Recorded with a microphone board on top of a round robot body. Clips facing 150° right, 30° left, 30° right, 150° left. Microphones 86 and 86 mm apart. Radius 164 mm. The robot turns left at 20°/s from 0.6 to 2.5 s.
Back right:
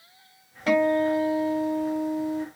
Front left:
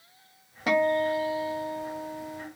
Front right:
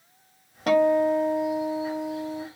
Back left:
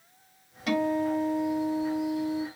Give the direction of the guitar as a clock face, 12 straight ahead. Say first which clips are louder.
Back right 3 dB, front right 7 dB; 1 o'clock.